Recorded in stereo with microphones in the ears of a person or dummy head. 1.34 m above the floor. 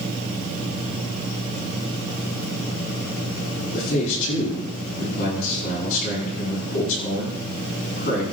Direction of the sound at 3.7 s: 55° left (ahead or behind).